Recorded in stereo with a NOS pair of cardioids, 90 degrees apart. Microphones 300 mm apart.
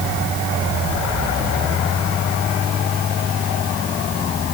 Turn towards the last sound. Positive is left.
No sound to turn to.